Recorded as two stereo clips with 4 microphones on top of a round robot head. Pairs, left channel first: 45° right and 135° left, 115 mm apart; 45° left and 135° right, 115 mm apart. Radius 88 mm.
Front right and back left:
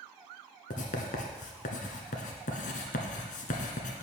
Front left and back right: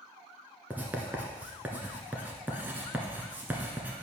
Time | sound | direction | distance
0.7 | writing | 55° right | 1.2 m